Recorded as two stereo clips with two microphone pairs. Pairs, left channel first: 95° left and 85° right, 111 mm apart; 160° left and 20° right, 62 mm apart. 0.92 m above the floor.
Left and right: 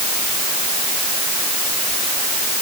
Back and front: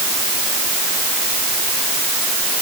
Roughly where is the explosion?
I don't hear an explosion.